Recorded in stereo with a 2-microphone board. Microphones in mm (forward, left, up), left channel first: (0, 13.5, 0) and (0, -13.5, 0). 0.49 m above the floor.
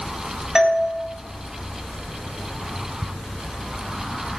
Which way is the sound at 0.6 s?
25° right (ahead or behind).